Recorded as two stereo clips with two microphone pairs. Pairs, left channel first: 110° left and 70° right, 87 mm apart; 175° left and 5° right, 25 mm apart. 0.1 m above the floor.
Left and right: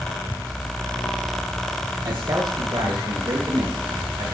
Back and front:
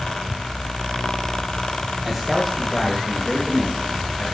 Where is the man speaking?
85° right, 3 m; by 4.3 s 90° right, 5.5 m.